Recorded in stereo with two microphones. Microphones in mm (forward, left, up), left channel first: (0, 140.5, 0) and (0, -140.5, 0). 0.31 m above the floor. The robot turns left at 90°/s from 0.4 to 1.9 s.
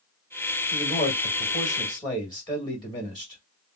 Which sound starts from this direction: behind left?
A man speaking, at 0.7 s.